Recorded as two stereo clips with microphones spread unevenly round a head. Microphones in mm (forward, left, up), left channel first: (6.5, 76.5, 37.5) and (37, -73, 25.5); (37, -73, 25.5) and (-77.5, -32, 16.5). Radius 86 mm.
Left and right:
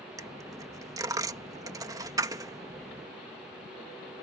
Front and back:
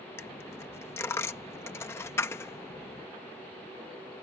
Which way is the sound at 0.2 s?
30° right.